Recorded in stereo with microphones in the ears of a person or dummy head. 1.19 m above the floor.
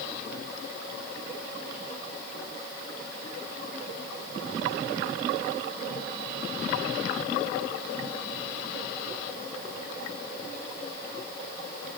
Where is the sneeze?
No sneeze in this recording.